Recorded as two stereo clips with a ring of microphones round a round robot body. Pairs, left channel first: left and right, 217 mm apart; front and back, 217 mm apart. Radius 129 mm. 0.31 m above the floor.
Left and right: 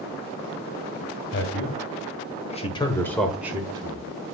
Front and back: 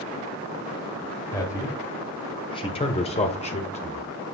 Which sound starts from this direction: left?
A man speaking, at 1.3 s.